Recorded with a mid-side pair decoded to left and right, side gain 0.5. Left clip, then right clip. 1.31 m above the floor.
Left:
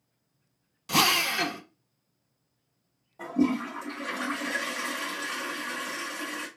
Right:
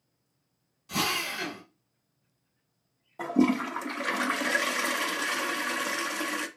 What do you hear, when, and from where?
0.9 s a drill: 65° left, 0.8 m
3.2 s a toilet flushing: 50° right, 0.7 m